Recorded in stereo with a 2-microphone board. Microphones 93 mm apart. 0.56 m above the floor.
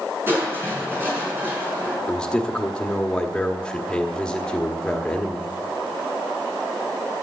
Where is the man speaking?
10° left (ahead or behind), 1.2 m.